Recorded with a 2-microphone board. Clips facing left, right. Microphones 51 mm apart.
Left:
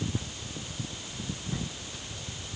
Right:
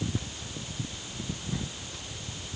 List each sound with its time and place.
Only background noise.